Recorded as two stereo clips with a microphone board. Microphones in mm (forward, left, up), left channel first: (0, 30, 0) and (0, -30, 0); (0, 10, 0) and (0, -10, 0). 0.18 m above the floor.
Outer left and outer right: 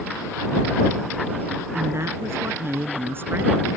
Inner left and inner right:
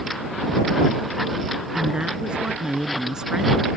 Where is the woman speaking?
55° right (ahead or behind); by 3.7 s 35° right (ahead or behind).